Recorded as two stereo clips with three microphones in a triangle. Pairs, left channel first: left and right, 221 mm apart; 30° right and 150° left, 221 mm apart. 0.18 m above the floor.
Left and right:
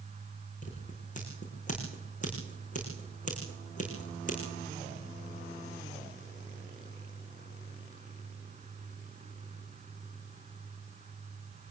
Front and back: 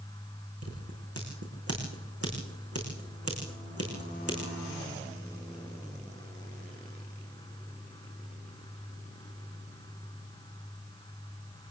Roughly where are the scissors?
Behind left.